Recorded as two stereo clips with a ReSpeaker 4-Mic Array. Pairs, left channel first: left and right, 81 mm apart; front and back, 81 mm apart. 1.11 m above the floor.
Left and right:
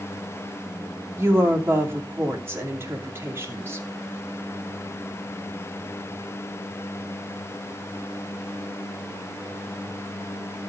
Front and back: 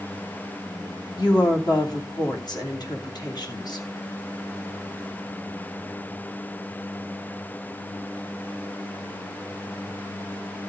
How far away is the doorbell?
No doorbell in this recording.